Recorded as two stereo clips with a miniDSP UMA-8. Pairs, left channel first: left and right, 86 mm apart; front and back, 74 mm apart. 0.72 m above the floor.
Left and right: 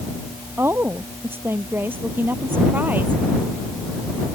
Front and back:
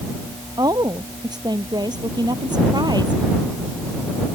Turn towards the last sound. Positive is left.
turn(degrees=-160)